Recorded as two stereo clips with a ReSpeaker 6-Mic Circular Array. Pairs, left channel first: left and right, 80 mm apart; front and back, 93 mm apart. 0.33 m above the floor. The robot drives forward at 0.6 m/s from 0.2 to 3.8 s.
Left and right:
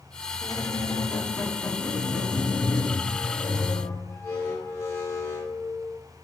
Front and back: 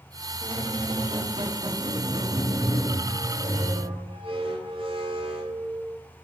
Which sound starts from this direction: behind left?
A squeak, at 0.4 s.